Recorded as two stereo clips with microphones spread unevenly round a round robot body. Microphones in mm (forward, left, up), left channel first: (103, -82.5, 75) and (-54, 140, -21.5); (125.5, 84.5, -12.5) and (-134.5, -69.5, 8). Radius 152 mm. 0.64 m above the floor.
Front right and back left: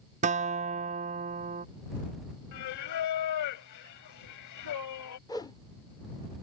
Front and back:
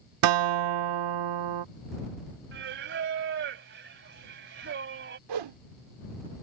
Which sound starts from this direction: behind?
A guitar, at 0.2 s.